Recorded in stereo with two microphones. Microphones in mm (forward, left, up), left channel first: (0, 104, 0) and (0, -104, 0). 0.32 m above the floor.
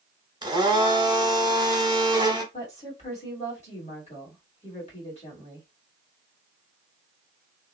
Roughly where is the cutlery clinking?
No cutlery clinking in this recording.